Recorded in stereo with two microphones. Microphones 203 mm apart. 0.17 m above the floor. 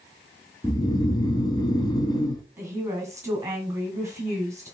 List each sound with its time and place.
0.6 s snoring: 20° left (ahead or behind), 0.6 m
2.6 s a woman speaking: 15° right (ahead or behind), 1.6 m